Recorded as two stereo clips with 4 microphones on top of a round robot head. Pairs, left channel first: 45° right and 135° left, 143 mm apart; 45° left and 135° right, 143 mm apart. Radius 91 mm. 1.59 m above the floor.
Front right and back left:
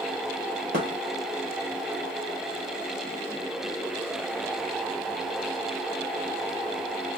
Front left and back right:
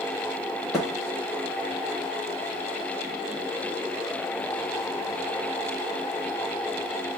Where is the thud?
135° left, 1.1 m.